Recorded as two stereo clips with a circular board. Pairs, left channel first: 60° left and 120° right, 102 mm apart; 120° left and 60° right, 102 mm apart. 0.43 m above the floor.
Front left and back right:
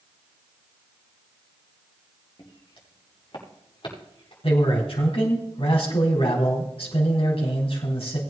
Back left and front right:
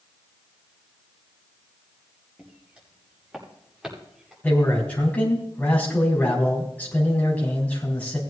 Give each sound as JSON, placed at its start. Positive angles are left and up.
{"t": 2.4, "sound": "footsteps", "azimuth_deg": 20, "distance_m": 5.5}
{"t": 4.4, "sound": "a man speaking", "azimuth_deg": 45, "distance_m": 3.5}